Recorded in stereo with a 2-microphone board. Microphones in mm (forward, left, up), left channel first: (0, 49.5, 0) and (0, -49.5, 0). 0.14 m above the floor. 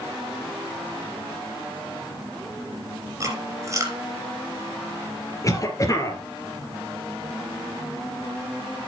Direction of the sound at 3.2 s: 30° right (ahead or behind).